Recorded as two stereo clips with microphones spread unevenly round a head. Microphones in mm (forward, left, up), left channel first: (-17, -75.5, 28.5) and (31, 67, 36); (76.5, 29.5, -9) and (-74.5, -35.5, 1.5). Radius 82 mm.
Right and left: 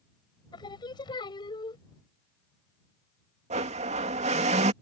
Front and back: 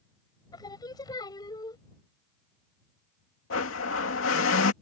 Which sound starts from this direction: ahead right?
Singing, at 0.5 s.